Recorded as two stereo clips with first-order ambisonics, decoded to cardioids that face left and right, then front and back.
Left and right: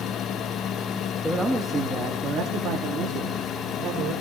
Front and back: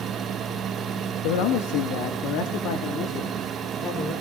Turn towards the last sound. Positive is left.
turn(degrees=-55)